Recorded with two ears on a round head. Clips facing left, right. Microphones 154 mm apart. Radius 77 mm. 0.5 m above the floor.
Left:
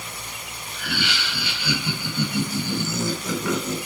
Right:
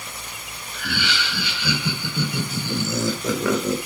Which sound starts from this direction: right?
Laughter, at 0.7 s.